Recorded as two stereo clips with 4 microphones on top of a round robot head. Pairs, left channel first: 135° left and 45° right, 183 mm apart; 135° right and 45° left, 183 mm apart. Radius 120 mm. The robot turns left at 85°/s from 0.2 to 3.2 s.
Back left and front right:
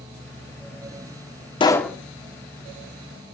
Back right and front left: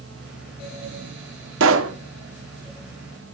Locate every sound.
1.6 s a pop: 70° left, 1.1 m; by 2.0 s 40° left, 1.1 m